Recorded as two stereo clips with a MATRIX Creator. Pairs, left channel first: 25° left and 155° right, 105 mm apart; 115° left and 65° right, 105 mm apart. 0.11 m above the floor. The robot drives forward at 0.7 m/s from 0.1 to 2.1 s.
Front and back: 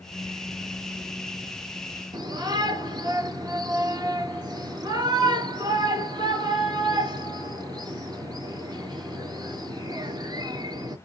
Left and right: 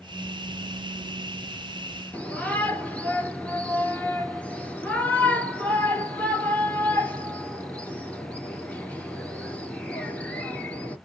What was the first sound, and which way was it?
A shout, 175° right.